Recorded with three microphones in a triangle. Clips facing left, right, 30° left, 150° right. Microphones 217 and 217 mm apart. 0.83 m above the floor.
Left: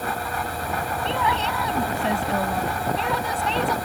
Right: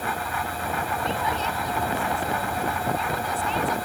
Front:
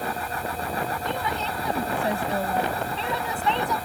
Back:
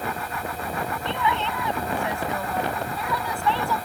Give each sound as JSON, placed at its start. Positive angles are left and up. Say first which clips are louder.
{"t": 1.1, "sound": "a woman speaking", "louder": "left 5 dB, back 2 dB", "azimuth_deg": 75}